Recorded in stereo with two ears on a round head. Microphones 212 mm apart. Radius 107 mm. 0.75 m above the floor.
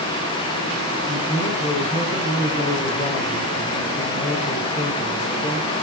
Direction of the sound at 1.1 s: 35° left (ahead or behind).